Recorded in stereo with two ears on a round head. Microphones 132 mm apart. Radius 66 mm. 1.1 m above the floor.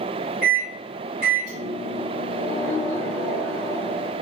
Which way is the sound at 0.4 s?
60° right (ahead or behind).